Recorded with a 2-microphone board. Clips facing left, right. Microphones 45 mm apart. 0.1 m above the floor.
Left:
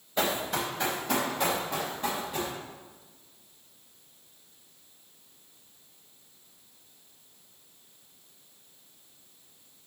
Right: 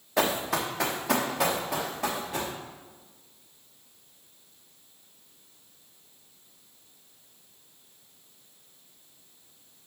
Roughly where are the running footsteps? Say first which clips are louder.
Right 2 dB; right.